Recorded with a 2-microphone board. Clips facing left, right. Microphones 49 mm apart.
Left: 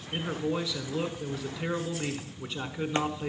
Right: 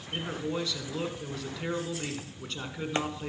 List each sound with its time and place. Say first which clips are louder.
0.1 s a man speaking: left 2 dB; 10° left (ahead or behind), 1.3 m